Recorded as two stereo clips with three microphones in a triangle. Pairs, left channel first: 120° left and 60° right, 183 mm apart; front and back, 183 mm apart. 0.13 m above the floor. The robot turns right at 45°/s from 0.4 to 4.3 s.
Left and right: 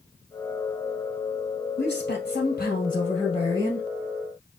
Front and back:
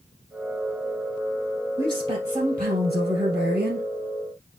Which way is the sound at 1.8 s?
105° left.